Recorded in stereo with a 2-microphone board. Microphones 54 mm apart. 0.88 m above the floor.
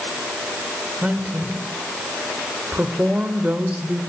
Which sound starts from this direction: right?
A woman speaking, at 1.0 s.